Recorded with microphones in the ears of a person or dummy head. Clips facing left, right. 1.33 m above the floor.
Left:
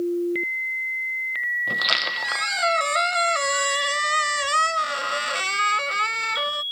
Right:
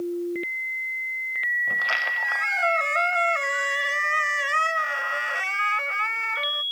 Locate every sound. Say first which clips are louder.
1.7 s a squeak: left 3 dB; 50° left (ahead or behind)